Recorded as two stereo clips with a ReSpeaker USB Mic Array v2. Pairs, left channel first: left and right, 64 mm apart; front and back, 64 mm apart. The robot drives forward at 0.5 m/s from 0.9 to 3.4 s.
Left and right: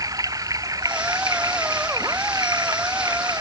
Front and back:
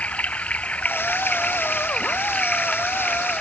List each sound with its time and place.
0.0 s running water: 70° right; by 3.4 s 80° right